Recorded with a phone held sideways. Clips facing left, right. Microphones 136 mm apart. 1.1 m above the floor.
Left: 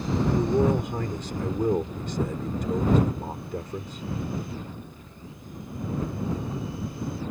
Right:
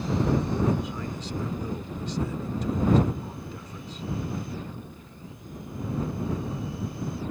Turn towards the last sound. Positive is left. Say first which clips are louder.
# left 3 dB
turn(degrees=60)  # may be behind; listen again after turning